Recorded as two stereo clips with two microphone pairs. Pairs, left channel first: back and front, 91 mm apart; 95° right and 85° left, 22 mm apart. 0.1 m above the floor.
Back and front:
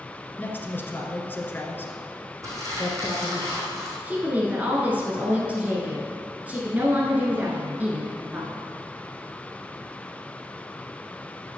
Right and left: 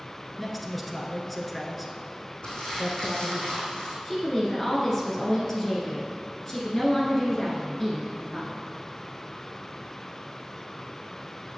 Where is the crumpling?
55° right, 3.5 m.